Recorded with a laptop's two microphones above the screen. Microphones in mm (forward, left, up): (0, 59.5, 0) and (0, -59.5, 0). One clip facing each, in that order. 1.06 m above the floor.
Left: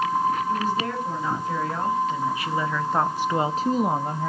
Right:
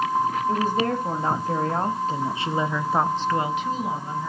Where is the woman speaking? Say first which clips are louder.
Right 2 dB; 50° right (ahead or behind), 2.5 m; by 4.3 s 65° left (ahead or behind), 1.0 m.